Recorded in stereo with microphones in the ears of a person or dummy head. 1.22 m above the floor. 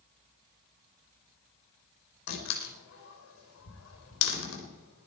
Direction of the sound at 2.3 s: 90° left.